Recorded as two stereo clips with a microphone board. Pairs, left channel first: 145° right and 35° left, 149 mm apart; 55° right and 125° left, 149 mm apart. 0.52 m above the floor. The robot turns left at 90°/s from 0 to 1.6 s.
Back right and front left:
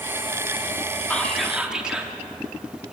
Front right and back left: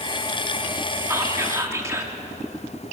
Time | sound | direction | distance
1.1 | whispering | 155° left | 1.2 m